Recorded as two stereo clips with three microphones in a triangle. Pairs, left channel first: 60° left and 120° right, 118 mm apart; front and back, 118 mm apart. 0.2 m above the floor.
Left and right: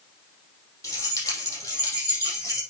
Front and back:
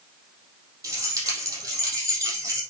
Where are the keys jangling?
120° left, 4 m.